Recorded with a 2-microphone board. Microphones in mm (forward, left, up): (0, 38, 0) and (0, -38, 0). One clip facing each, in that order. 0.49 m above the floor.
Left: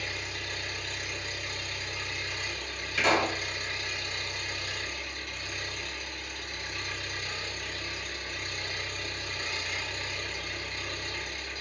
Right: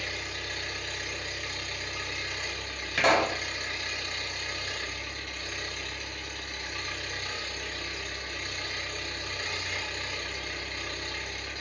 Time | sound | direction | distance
0.0 | an engine running | 45° right (ahead or behind) | 1.3 m
3.0 | a pop | 60° right (ahead or behind) | 0.6 m